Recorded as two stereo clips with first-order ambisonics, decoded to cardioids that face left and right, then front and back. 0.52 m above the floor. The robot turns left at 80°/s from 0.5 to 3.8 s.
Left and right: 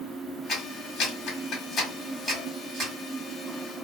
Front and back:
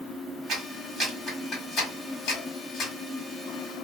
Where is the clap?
140° left, 1.4 m; by 2.9 s 55° right, 1.4 m.